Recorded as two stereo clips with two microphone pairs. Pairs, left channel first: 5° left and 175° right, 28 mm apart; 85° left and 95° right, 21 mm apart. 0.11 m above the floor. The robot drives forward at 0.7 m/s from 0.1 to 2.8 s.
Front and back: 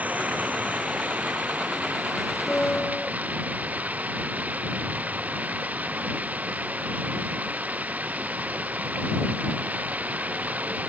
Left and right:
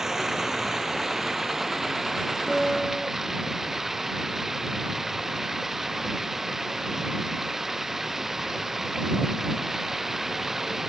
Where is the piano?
Straight ahead.